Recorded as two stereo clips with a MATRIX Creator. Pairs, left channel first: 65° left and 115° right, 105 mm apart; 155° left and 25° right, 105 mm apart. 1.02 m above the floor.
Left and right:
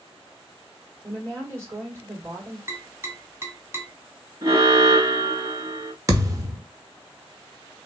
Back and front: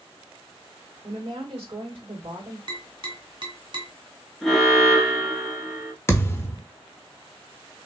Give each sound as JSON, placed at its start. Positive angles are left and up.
{"t": 1.0, "sound": "a woman speaking", "azimuth_deg": -50, "distance_m": 2.5}
{"t": 2.7, "sound": "tapping", "azimuth_deg": -50, "distance_m": 1.5}
{"t": 4.4, "sound": "an alarm", "azimuth_deg": -105, "distance_m": 1.6}
{"t": 6.1, "sound": "a thud", "azimuth_deg": -150, "distance_m": 0.8}